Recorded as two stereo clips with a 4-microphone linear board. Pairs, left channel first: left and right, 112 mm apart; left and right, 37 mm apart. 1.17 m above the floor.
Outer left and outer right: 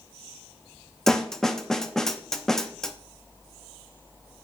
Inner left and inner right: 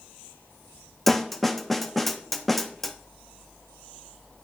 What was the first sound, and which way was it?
A snare drum, 5° left (ahead or behind).